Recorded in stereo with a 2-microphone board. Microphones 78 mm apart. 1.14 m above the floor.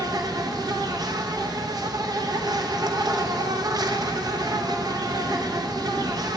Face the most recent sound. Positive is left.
turn(degrees=-50)  # may be behind; listen again after turning